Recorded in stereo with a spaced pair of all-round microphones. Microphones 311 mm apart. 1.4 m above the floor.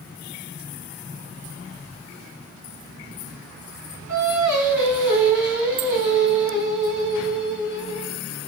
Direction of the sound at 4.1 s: 65° left (ahead or behind).